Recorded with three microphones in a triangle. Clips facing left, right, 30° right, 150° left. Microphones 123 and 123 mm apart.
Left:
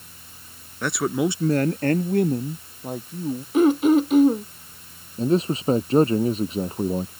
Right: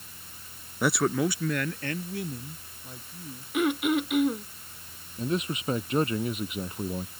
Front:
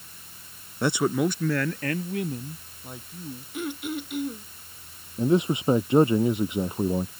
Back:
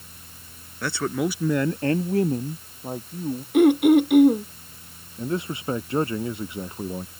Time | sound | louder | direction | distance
0.8 | a man speaking | left 2 dB, front 2 dB | 25° right | ?
3.5 | throat clearing | left 9 dB, back 17 dB | 145° left | ?
5.2 | a man speaking | left 9 dB, front 6 dB | 40° left | ?